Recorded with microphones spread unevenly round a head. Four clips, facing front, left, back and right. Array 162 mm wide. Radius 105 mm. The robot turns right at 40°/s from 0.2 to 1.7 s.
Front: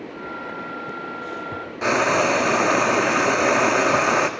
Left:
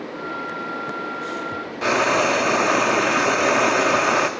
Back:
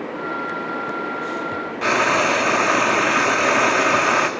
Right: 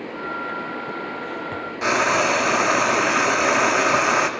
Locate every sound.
1.8 s frying: 40° left, 0.6 m